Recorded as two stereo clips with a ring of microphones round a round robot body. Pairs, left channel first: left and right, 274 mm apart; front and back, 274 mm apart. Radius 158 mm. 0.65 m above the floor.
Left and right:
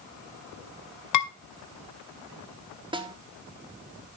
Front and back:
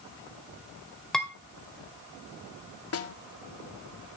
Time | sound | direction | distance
1.1 | dishes clattering | 90° left | 1.9 m
2.9 | a snare drum | 20° right | 1.8 m